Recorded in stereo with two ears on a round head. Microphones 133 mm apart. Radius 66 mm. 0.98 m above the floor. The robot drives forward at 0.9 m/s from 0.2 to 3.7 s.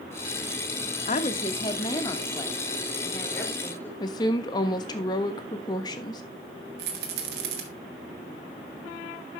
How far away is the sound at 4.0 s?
About 1.3 m.